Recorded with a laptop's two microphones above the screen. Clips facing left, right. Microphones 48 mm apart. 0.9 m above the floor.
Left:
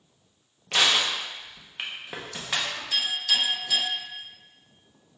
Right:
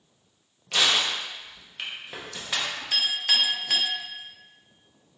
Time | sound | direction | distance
0.7 | crushing | 20° left (ahead or behind) | 0.6 m
2.9 | a clink | 55° right (ahead or behind) | 0.9 m